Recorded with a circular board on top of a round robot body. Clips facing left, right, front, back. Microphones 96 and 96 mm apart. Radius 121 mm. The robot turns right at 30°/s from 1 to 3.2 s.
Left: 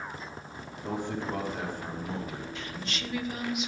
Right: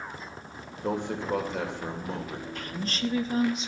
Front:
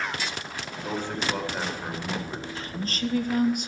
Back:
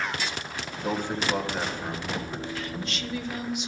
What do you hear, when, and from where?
0.8 s a man speaking: 105° right, 3 m; by 2.5 s 60° right, 3 m
2.5 s a woman speaking: 55° right, 1.5 m; by 3.7 s 35° right, 1.5 m